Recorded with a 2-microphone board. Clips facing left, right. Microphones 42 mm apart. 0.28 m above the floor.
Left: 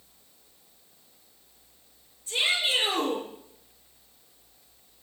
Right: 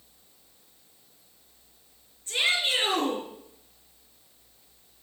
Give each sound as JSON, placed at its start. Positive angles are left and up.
{"t": 2.3, "sound": "a shout", "side_deg": -40, "distance_m": 4.5}